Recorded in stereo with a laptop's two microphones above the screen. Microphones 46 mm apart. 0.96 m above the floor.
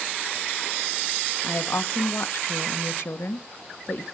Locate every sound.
1.4 s a woman speaking: 65° left (ahead or behind), 1.4 m